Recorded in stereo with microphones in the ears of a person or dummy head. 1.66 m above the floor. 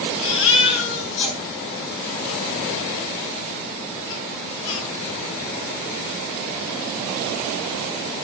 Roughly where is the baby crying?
Left.